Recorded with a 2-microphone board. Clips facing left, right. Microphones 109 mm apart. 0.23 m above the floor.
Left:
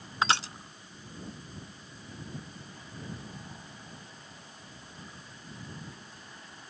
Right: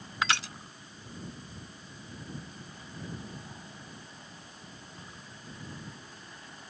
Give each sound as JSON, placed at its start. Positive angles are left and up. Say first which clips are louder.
{"t": 0.2, "sound": "crushing", "louder": "left 3 dB", "side_deg": 30}